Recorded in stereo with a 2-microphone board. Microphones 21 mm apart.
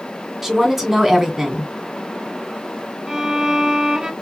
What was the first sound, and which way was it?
A woman speaking, 10° right (ahead or behind).